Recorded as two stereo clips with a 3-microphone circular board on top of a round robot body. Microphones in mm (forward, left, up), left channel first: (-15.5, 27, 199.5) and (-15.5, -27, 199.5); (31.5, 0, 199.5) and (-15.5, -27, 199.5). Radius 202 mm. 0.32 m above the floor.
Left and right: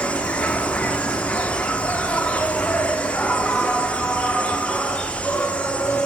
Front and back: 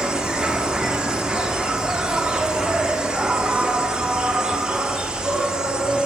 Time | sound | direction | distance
0.0 | an insect | 145° left | 0.8 m